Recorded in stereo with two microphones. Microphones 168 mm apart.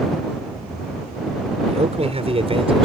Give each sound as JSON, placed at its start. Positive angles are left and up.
{"t": 1.7, "sound": "a man speaking", "side_deg": -40}